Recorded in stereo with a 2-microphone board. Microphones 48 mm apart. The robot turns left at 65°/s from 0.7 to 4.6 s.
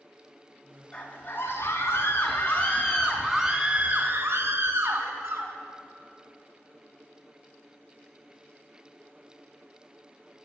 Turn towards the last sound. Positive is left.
turn(degrees=-90)